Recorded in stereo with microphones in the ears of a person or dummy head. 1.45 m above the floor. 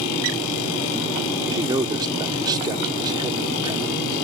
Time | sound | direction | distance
1.5 | a man speaking | 25° right (ahead or behind) | ?